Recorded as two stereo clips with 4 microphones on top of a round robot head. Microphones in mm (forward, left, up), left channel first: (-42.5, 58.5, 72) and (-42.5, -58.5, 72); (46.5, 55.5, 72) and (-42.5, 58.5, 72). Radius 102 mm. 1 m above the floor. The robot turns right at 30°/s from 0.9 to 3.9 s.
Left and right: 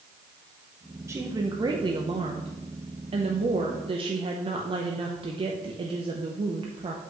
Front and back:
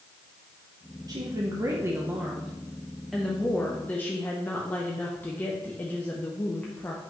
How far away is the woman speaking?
About 0.8 m.